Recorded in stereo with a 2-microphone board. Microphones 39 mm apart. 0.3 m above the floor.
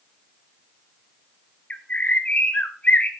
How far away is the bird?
About 1.3 m.